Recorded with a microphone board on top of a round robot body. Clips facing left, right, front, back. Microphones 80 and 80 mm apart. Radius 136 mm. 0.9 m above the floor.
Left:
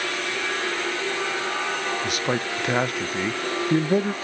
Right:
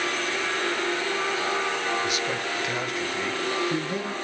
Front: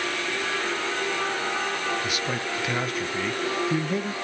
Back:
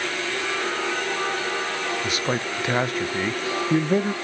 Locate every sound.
2.0 s a man speaking: 125° left, 0.6 m